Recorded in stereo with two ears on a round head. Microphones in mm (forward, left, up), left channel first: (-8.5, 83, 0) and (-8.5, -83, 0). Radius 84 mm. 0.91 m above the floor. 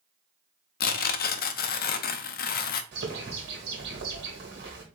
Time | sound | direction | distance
0.8 | tearing paper | 50° left (ahead or behind) | 0.5 m
2.9 | a bird | 55° right (ahead or behind) | 1.7 m